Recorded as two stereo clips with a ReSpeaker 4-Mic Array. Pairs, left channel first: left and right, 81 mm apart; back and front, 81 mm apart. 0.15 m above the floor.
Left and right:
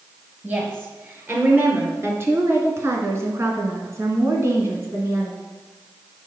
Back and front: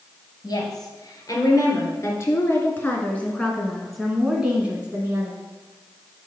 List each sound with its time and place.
0.4 s a woman speaking: 150° right, 3 m; by 5.4 s 45° right, 1.7 m